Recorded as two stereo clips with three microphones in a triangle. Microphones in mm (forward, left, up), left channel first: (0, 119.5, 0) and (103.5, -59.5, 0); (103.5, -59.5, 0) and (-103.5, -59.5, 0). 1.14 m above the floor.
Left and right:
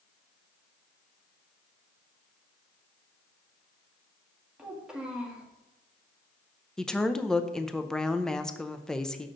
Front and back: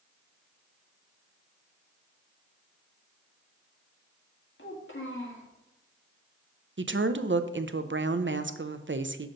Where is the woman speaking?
155° right, 0.6 m.